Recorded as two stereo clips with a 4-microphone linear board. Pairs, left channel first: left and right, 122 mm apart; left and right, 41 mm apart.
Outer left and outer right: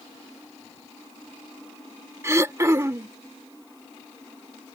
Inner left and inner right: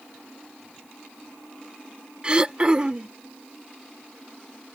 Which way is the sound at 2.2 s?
25° right (ahead or behind).